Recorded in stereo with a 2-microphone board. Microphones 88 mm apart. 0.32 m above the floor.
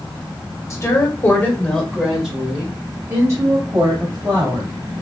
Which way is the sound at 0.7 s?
35° left (ahead or behind).